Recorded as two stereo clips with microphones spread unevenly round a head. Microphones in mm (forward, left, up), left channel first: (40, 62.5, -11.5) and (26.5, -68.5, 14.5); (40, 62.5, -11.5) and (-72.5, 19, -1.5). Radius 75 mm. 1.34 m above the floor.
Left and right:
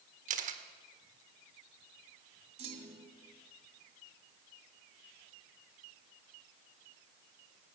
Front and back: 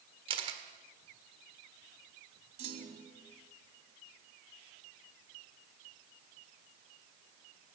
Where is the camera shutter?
110° right, 1.7 m.